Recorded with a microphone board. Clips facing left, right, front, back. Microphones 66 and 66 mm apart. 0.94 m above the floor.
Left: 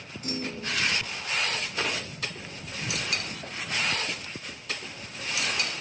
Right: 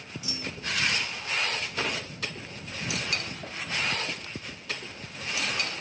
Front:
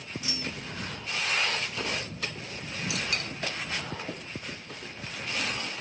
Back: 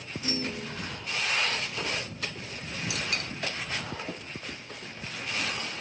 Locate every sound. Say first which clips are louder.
0.2 s a clunk: left 4 dB, back 7 dB; 130° left